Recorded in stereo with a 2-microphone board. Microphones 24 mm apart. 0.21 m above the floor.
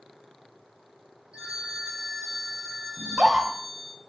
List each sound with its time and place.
1.3 s a phone ringing: 40° right (ahead or behind), 3.5 m
3.0 s a scream: 35° right (ahead or behind), 1.2 m